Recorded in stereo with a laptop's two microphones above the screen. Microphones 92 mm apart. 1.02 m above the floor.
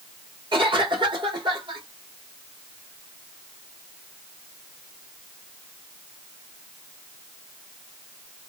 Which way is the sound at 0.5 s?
65° right (ahead or behind).